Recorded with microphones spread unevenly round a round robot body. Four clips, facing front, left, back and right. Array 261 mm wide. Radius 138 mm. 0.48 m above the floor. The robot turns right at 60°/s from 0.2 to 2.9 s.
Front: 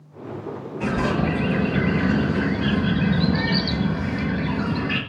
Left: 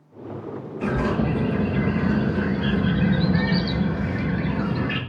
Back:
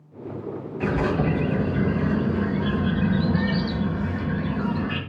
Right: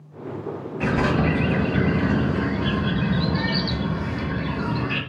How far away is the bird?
About 6.5 m.